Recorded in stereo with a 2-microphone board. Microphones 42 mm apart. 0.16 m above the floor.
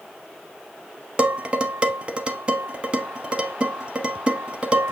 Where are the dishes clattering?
25° right (ahead or behind), 0.7 m.